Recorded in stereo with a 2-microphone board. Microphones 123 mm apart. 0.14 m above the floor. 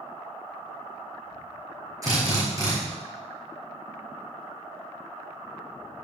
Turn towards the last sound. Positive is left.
turn(degrees=-30)  # may be behind; listen again after turning